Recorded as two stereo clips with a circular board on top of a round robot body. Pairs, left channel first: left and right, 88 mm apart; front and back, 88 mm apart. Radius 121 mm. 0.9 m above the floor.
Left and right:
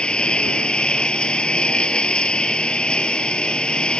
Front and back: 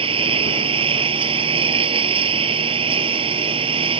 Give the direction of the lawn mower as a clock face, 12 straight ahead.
6 o'clock.